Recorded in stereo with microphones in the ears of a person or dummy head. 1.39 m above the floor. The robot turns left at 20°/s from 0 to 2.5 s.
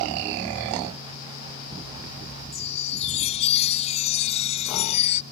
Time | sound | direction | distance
2.5 | a chime | 40° left (ahead or behind) | ?